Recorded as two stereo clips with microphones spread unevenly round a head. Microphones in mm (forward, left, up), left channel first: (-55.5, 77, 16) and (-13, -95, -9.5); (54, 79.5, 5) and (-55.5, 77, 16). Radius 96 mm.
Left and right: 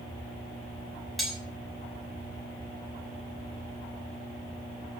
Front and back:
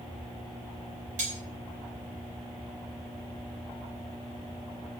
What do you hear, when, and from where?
1.2 s cutlery clinking: 170° right, 6.5 m